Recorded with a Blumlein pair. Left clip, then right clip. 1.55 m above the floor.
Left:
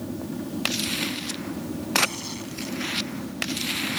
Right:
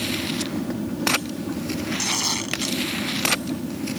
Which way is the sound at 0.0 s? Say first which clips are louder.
Right 8 dB; 10° right.